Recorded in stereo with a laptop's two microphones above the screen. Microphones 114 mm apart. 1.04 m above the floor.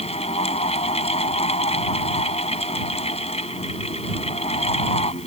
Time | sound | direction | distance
0.0 | a fan | 65° left (ahead or behind) | ?